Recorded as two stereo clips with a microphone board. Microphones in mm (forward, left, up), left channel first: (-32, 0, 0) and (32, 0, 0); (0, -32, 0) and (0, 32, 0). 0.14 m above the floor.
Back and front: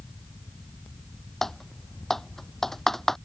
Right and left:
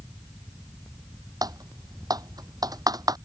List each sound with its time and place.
1.4 s typing on a keyboard: 95° left